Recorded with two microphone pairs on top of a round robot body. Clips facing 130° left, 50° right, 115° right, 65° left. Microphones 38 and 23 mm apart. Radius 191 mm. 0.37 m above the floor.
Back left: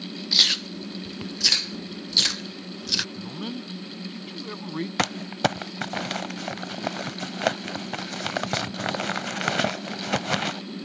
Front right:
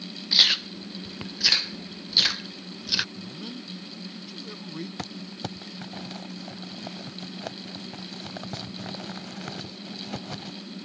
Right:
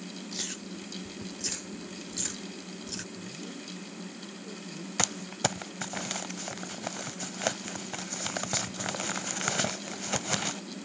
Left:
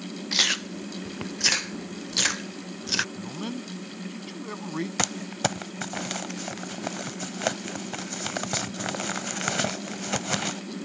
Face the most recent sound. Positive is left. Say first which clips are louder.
# back left 11 dB, left 1 dB
turn(degrees=150)